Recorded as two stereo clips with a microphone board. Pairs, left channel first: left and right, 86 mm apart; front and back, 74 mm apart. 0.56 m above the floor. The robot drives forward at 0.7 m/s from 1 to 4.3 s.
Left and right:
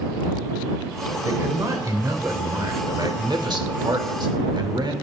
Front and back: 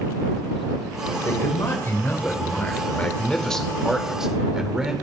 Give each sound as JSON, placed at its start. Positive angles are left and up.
{"t": 1.2, "sound": "a man speaking", "azimuth_deg": -40, "distance_m": 2.5}